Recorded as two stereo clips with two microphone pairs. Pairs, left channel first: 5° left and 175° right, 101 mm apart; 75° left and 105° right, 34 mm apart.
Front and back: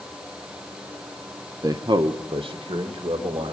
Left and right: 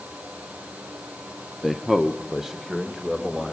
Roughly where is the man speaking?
Behind.